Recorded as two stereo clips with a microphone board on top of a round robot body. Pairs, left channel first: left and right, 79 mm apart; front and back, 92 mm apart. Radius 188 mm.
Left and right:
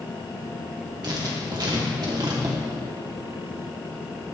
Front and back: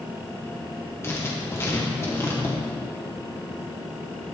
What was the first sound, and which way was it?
Writing, 60° right.